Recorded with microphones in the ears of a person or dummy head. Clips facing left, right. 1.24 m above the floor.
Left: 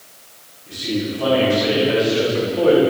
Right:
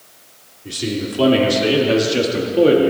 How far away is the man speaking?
About 4 m.